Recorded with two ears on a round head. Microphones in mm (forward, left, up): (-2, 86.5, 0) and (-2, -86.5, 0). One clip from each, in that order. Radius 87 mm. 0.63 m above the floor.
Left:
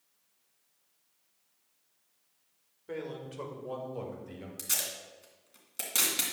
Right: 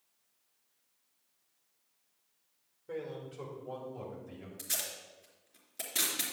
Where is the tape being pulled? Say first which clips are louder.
Left 4 dB; 45° left (ahead or behind), 2.5 m.